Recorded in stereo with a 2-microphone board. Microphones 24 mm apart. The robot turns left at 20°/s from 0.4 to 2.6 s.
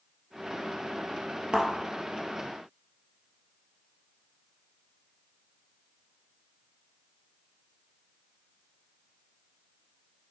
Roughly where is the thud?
Right.